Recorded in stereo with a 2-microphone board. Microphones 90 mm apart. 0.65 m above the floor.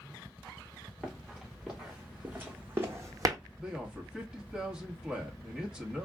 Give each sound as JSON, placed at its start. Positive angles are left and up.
{"t": 1.0, "sound": "running footsteps", "side_deg": 0, "distance_m": 3.0}
{"t": 3.6, "sound": "a man speaking", "side_deg": -10, "distance_m": 1.3}